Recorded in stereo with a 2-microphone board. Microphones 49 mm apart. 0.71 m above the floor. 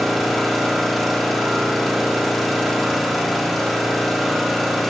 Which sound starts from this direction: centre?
An engine running, at 0.0 s.